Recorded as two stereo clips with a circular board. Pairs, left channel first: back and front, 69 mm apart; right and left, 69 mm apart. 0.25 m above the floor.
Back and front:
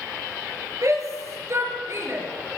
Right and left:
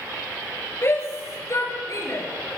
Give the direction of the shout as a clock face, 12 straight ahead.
1 o'clock.